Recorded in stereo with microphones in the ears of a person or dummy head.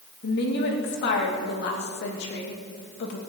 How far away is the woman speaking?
About 2.5 m.